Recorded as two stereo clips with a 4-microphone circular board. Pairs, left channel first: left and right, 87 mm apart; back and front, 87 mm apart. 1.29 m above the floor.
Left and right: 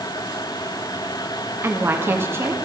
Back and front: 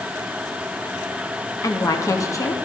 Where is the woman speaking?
140° right, 0.6 m.